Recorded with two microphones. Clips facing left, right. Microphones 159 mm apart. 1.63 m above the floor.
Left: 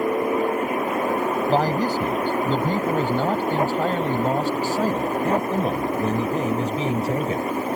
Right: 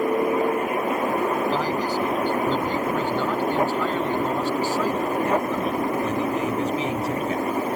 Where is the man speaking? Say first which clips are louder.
Left 3 dB; 45° left (ahead or behind); by 7.5 s 35° left (ahead or behind).